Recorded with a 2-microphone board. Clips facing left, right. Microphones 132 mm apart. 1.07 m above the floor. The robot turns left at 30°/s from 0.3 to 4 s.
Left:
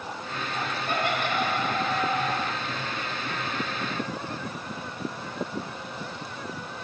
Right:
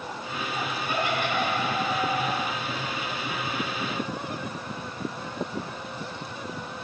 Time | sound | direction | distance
0.7 | laughter | 75° left (ahead or behind) | 5.5 m